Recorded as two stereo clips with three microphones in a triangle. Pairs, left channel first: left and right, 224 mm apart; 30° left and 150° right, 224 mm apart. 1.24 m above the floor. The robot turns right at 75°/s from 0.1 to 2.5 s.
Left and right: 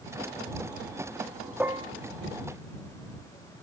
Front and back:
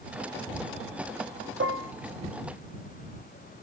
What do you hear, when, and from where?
1.6 s dishes clattering: 175° right; by 1.9 s 150° right